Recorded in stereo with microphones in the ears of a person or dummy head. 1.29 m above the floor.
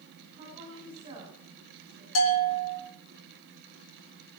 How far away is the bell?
About 4.5 m.